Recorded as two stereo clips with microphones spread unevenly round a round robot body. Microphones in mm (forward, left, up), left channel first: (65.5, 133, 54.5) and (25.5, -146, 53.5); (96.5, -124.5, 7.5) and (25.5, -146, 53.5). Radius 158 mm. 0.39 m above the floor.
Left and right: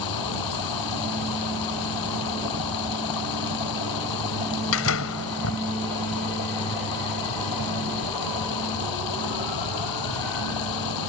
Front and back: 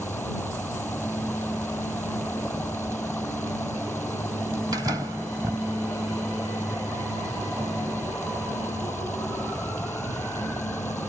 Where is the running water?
100° left.